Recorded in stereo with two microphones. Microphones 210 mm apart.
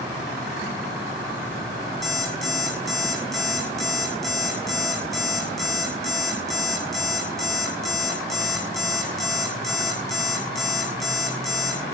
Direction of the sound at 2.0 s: Centre (ahead or behind).